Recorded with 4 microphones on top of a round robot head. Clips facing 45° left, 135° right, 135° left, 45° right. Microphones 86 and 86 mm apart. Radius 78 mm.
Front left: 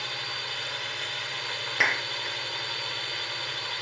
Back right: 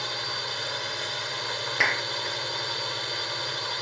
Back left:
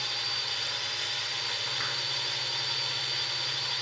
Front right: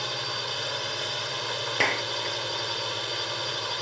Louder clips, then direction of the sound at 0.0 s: Back right 3 dB, front right 6 dB; 70° right.